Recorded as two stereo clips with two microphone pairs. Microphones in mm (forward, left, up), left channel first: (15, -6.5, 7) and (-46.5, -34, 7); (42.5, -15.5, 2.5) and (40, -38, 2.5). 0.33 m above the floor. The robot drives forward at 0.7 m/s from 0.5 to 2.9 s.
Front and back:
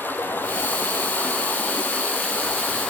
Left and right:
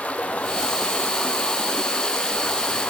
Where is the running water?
85° left, 3.5 m; by 2.9 s 115° left, 3.5 m.